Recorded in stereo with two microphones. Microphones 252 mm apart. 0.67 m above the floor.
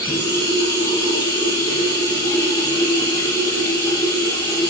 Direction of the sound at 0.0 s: 15° left (ahead or behind).